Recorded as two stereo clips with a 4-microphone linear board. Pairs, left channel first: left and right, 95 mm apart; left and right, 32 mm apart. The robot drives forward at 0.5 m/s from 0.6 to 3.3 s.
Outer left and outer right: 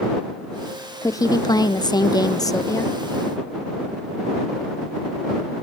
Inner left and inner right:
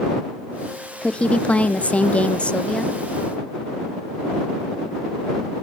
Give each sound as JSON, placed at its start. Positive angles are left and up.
{"t": 1.0, "sound": "a woman speaking", "side_deg": 35, "distance_m": 0.7}